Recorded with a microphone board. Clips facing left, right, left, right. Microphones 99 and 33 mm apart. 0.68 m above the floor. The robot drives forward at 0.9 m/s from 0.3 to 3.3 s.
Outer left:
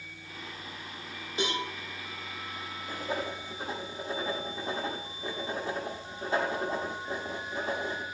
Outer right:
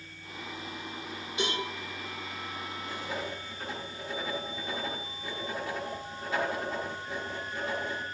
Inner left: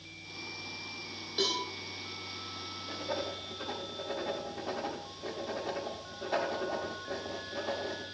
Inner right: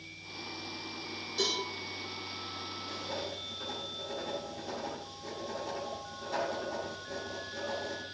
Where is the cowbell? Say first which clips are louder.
Outer left 1 dB, inner left 1 dB; 35° left (ahead or behind), 4.5 m.